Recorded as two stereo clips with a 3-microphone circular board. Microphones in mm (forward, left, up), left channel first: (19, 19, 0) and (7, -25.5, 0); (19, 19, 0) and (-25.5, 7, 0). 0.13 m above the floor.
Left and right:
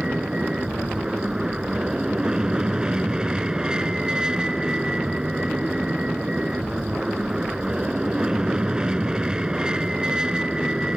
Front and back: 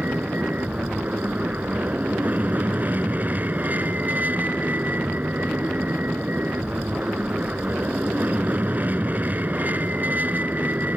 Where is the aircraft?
165° right.